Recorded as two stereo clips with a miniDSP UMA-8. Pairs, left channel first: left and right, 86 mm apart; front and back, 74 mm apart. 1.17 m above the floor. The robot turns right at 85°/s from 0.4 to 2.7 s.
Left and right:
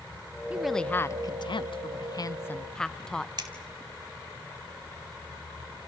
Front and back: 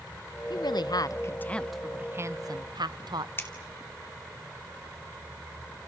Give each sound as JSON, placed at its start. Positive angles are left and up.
{"t": 0.5, "sound": "a woman speaking", "azimuth_deg": -15, "distance_m": 0.8}
{"t": 3.4, "sound": "scissors", "azimuth_deg": -55, "distance_m": 2.5}